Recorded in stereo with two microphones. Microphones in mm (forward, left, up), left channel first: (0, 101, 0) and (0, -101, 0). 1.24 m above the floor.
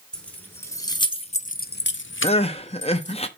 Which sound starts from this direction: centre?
Keys jangling, at 0.1 s.